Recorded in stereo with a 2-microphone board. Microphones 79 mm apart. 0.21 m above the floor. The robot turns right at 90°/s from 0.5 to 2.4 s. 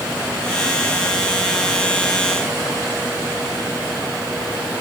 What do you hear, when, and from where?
Only background noise.